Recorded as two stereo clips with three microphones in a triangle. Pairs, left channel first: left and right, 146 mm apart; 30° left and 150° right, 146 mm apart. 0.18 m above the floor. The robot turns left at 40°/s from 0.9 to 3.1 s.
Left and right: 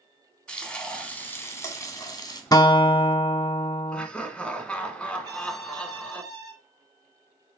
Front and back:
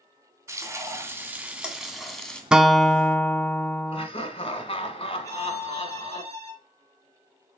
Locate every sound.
0.5 s frying: 165° left, 1.5 m; by 2.4 s 105° left, 1.5 m
2.5 s a guitar: 130° left, 0.5 m; by 4.1 s 105° left, 0.5 m
3.9 s laughter: 10° left, 1.6 m
5.2 s a violin: 35° right, 2.5 m